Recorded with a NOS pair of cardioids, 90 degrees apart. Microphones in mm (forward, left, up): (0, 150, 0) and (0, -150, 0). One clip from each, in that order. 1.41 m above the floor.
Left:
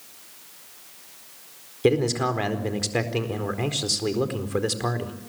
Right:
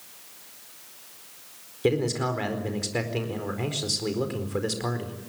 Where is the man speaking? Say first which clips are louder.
Left 3 dB; 25° left, 4.5 m.